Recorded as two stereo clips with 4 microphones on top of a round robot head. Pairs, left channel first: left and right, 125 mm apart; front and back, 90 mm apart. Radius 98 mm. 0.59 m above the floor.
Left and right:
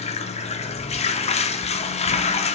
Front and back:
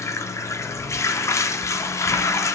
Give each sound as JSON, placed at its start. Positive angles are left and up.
{"t": 0.0, "sound": "running water", "azimuth_deg": 60, "distance_m": 0.8}